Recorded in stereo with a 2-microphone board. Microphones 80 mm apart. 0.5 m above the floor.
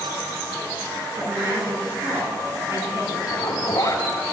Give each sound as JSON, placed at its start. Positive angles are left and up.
{"t": 1.2, "sound": "a woman speaking", "side_deg": -40, "distance_m": 6.0}
{"t": 3.3, "sound": "a zipper", "side_deg": 45, "distance_m": 3.0}